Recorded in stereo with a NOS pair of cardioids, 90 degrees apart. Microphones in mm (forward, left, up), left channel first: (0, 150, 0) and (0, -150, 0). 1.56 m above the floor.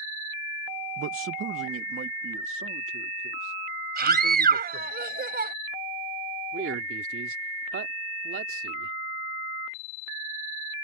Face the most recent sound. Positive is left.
turn(degrees=-45)